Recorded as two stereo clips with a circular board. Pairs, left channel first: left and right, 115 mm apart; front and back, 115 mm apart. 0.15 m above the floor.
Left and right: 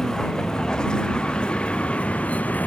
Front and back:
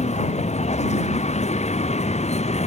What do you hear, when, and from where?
0.0 s a vehicle: 5° left; by 2.7 s 15° left